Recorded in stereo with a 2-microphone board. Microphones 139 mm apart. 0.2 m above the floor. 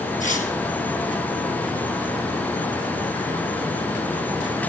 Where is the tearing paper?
65° left (ahead or behind), 3 m.